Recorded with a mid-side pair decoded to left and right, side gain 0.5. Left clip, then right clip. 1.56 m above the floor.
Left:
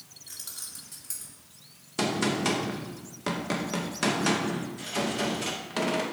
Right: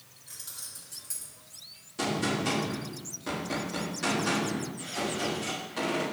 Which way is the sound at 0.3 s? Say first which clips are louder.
Left 2 dB; 35° left.